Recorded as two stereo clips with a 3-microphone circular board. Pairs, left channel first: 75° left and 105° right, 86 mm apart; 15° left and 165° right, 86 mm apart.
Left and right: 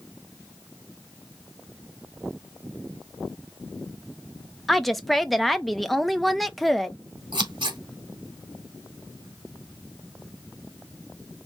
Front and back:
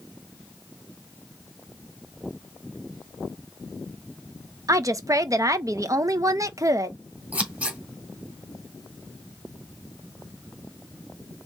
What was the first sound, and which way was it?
A woman speaking, 160° left.